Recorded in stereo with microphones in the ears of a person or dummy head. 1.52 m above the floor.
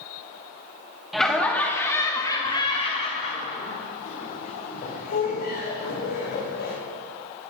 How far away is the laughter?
About 2.5 m.